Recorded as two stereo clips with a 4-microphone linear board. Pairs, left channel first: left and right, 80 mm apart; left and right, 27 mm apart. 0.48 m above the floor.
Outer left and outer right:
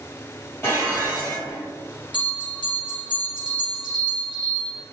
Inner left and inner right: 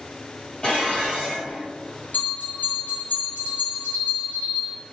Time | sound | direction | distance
0.6 | dishes clattering | 40° left (ahead or behind) | 1.8 m
2.1 | a bell | 80° left | 1.6 m